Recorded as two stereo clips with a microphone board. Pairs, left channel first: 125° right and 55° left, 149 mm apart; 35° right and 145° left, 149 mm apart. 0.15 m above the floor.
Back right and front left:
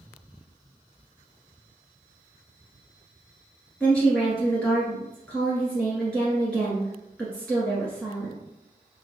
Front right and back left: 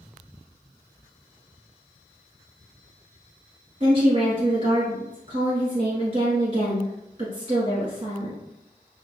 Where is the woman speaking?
155° left, 1.5 m.